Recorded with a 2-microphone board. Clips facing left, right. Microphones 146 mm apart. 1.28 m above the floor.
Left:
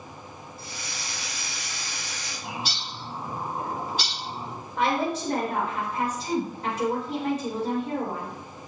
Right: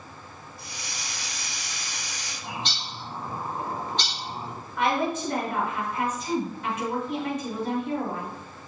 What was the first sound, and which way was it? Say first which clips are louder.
A hiss: even; 15° right (ahead or behind).